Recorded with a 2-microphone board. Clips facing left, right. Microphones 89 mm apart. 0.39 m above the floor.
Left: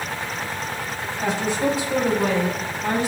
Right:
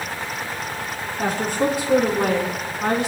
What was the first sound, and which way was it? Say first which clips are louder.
A woman speaking: right 1 dB; 50° right (ahead or behind).